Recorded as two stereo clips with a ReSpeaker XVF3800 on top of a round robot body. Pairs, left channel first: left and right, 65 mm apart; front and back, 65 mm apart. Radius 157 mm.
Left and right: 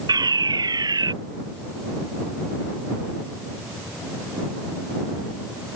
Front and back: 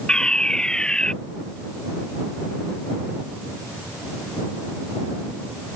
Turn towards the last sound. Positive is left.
turn(degrees=-80)